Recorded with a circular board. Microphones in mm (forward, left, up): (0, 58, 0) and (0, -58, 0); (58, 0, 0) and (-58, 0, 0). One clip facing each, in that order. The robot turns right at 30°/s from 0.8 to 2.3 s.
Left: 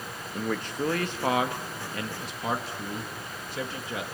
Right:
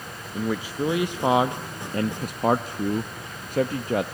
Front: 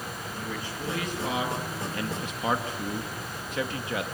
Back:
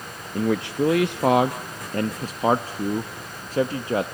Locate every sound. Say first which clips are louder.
0.3 s a man speaking: right 3 dB, back 16 dB; 175° right, 0.8 m; by 4.0 s 130° right, 0.8 m